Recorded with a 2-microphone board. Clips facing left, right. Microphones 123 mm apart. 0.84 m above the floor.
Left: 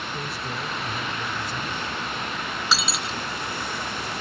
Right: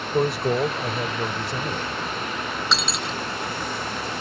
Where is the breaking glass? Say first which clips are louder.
Left 1 dB; 5° left (ahead or behind).